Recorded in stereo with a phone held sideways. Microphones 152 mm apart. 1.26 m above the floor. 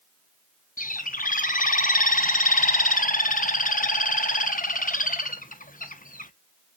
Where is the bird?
65° left (ahead or behind), 0.8 m.